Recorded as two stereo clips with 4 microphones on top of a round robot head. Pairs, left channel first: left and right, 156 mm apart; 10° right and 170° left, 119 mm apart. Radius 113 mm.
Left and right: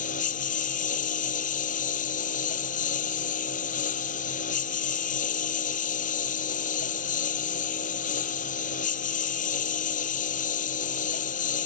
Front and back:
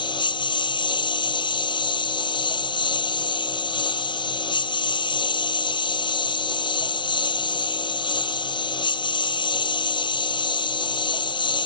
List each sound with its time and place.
0.0 s a lawn mower: 40° left